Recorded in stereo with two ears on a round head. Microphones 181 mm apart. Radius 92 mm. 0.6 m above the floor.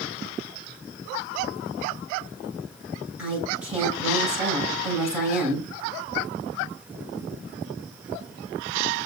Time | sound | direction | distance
3.2 | a woman speaking | 5° right (ahead or behind) | 6 m